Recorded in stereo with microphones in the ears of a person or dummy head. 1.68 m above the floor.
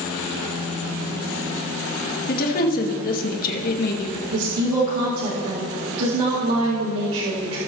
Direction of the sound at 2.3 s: 45° left (ahead or behind).